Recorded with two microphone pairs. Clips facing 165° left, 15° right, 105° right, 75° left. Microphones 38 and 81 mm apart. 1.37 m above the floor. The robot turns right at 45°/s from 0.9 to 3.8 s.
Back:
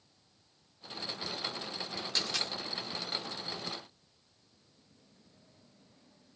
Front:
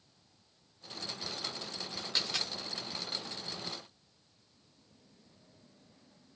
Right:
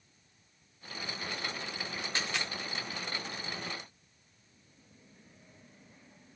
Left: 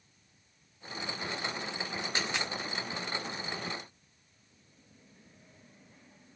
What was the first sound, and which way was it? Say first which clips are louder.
A dropped coin: even, left 1 dB; 40° left.